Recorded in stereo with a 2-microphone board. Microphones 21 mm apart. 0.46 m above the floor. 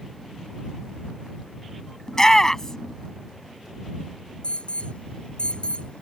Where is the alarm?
55° left (ahead or behind).